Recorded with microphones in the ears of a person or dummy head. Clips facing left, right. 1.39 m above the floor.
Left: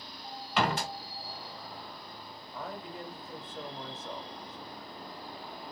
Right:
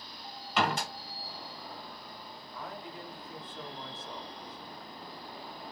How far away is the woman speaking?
About 1.3 m.